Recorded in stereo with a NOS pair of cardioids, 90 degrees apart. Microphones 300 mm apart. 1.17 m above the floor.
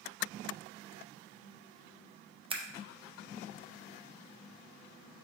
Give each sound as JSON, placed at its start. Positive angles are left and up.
{"t": 2.5, "sound": "scissors", "azimuth_deg": -20, "distance_m": 0.8}